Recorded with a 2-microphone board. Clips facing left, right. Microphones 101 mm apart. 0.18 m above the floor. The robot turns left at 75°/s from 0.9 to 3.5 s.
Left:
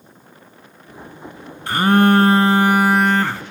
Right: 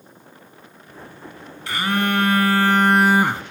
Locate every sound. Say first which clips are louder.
1.7 s a phone buzzing: left 8 dB; 100° left, 0.6 m; by 3.4 s 35° right, 0.6 m